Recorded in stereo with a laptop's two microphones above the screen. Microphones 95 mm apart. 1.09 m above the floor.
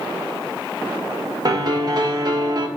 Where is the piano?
45° right (ahead or behind), 0.7 m.